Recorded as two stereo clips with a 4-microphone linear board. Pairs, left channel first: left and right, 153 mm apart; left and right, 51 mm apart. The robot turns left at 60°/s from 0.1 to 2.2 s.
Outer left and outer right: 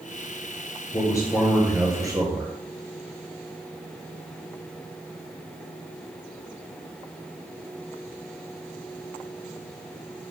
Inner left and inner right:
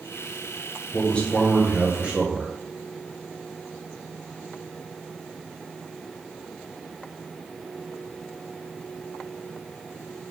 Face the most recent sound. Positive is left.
turn(degrees=-35)